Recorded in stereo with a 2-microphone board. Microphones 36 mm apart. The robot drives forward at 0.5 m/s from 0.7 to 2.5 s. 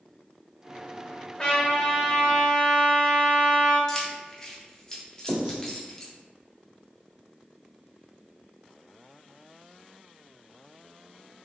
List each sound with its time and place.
1.4 s a trumpet: 20° left (ahead or behind), 1.4 m; by 3.8 s 15° left (ahead or behind), 1.9 m
3.9 s keys jangling: 15° left (ahead or behind), 0.5 m
5.3 s writing: 45° right (ahead or behind), 1.7 m